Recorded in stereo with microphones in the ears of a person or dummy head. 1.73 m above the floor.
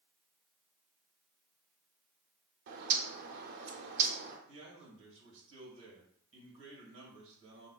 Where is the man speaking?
70° right (ahead or behind), 1.6 m.